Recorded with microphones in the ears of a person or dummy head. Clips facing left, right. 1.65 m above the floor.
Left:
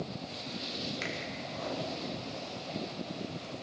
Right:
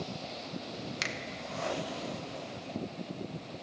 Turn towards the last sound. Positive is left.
turn(degrees=-65)  # may be behind; listen again after turning